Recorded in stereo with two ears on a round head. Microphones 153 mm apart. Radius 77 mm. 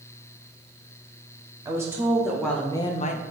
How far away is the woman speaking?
About 1.0 m.